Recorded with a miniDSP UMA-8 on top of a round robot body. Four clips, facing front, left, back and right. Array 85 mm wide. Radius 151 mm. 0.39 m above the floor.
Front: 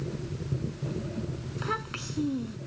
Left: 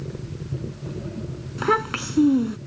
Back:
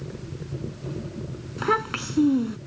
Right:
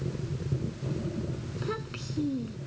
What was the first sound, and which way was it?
A child speaking, 125° left.